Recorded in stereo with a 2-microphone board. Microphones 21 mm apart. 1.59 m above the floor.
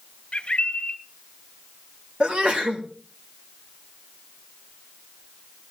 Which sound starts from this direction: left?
A bird, at 0.3 s.